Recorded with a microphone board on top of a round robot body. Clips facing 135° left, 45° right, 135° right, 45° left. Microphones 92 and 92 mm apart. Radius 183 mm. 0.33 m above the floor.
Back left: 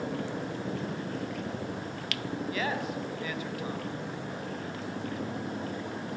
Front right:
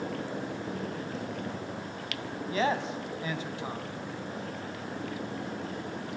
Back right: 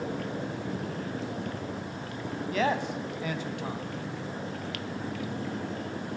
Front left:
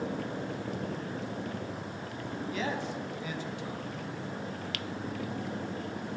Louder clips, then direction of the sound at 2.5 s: Front right 6 dB, back right 7 dB; 105° right.